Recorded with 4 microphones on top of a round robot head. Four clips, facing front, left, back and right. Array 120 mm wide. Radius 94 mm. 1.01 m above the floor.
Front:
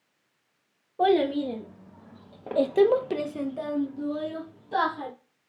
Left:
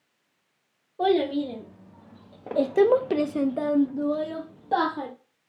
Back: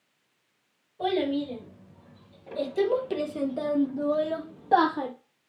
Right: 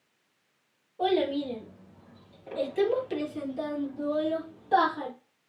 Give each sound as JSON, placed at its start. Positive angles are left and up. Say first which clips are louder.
{"t": 1.0, "sound": "a child speaking", "louder": "left 3 dB, front 4 dB", "azimuth_deg": 20, "distance_m": 1.3}